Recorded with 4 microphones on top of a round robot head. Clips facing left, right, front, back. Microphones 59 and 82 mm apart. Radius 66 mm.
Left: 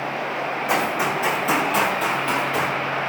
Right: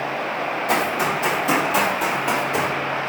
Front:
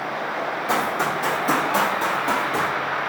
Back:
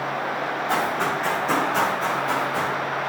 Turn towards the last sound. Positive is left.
turn(degrees=-30)